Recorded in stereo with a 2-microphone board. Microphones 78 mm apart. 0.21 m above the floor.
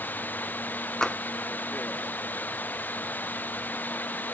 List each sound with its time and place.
0.0 s running water: 20° left (ahead or behind)
1.0 s tapping: 5° left (ahead or behind)